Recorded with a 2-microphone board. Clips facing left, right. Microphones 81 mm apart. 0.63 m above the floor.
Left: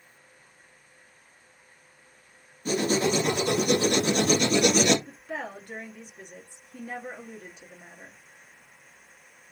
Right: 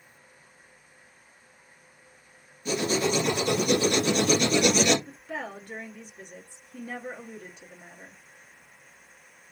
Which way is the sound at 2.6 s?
45° left (ahead or behind).